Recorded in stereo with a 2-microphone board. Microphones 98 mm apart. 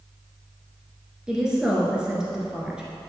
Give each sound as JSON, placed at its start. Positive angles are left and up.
{"t": 1.3, "sound": "a woman speaking", "side_deg": -10, "distance_m": 1.7}